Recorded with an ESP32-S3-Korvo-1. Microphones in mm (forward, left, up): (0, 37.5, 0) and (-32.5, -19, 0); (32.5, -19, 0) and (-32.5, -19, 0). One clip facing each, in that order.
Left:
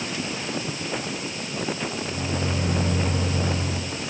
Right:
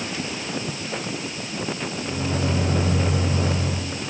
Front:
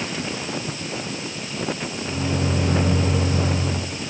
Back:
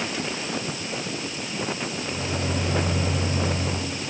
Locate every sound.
2.0 s a microwave: 55° right, 4.5 m